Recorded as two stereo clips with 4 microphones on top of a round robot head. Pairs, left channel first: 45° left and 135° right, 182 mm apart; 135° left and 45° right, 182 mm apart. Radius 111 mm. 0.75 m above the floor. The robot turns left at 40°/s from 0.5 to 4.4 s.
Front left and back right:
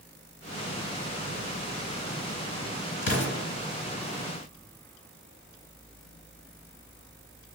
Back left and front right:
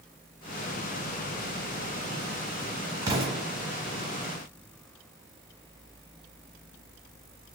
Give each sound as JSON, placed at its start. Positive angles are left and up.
{"t": 3.0, "sound": "an explosion", "azimuth_deg": 30, "distance_m": 1.2}